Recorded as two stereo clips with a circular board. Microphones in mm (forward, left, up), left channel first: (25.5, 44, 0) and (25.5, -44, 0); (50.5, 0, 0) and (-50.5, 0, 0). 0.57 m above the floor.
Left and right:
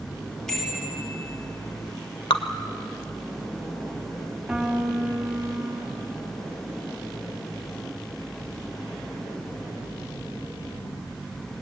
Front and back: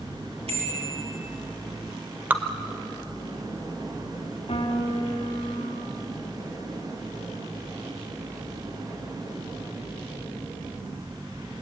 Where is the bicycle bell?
175° left, 10 m.